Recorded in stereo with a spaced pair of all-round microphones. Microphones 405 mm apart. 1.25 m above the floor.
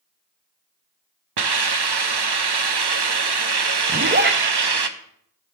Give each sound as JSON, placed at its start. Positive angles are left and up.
{"t": 1.4, "sound": "a hiss", "side_deg": -70, "distance_m": 0.6}
{"t": 3.9, "sound": "a zipper", "side_deg": -25, "distance_m": 0.6}